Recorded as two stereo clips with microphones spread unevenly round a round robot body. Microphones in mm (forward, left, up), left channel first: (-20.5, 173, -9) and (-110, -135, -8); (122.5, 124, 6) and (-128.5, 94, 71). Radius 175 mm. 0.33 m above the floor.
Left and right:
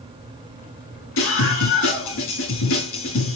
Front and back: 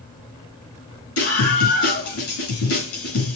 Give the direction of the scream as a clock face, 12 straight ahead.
11 o'clock.